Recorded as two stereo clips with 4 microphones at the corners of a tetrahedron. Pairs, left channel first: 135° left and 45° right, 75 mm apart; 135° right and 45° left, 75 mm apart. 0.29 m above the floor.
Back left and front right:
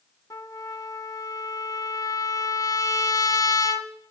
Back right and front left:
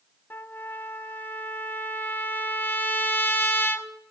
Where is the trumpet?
165° left, 0.9 m.